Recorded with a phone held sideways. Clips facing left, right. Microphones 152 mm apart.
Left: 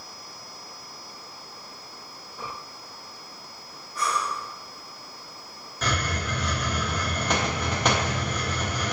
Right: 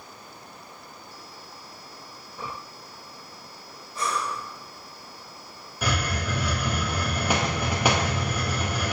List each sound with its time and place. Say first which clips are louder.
4.0 s breathing: left 1 dB; 25° right (ahead or behind), 0.8 m
5.8 s a hiss: right 1 dB; 10° right (ahead or behind), 0.7 m